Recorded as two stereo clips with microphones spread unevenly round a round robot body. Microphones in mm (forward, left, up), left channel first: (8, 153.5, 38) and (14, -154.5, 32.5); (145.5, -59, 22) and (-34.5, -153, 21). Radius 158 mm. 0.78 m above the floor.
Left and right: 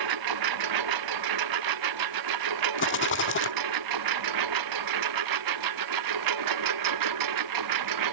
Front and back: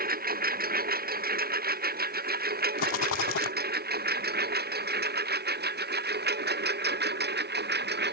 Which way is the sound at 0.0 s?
110° right.